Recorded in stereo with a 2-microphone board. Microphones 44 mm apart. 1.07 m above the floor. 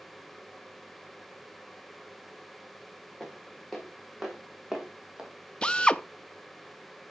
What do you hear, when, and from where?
3.2 s footsteps: 5° left (ahead or behind), 5 m; by 5.3 s 20° right (ahead or behind), 3.5 m
5.6 s a drill: 25° left (ahead or behind), 0.7 m